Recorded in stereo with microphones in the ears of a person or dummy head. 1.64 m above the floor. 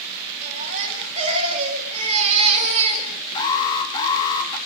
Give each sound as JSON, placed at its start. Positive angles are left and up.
{"t": 0.4, "sound": "a baby crying", "side_deg": -35, "distance_m": 6.0}
{"t": 3.4, "sound": "an alarm", "side_deg": 20, "distance_m": 4.0}